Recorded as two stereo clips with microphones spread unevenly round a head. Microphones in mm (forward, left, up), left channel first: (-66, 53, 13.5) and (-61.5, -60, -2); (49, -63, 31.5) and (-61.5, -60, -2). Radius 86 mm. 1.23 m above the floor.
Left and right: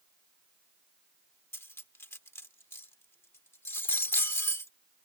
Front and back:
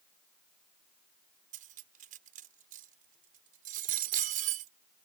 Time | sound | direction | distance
1.5 | cutlery clinking | 160° left | ?